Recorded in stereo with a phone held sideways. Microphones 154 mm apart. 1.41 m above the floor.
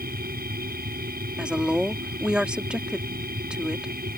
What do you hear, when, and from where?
0.0 s a machine running: 80° right
1.4 s a woman speaking: 5° right (ahead or behind)